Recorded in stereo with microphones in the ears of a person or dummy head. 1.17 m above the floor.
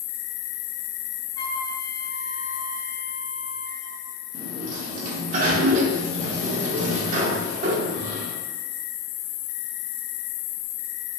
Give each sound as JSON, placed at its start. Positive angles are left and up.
{"t": 0.0, "sound": "an insect", "side_deg": 20, "distance_m": 1.2}
{"t": 1.4, "sound": "a flute", "side_deg": 15, "distance_m": 0.6}
{"t": 4.3, "sound": "a sliding door", "side_deg": -45, "distance_m": 0.7}